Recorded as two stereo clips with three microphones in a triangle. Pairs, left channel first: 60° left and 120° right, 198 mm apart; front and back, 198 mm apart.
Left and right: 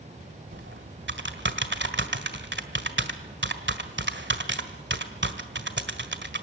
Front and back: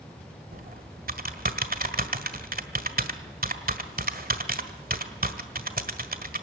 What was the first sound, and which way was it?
Typing on a keyboard, 140° right.